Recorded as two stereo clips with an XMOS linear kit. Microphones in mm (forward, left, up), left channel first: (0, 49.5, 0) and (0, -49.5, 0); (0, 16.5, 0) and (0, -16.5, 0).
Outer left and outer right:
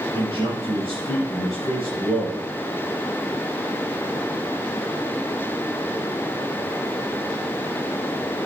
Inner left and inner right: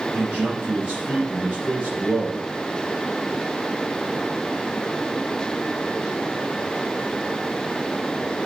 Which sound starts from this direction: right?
A man speaking, at 0.1 s.